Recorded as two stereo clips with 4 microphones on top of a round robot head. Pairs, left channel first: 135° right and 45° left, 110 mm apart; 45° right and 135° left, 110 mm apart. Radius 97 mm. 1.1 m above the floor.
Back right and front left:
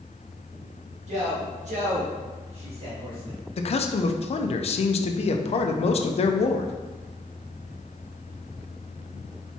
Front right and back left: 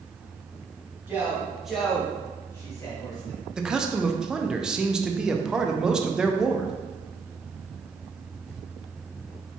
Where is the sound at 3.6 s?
140° right, 0.5 m.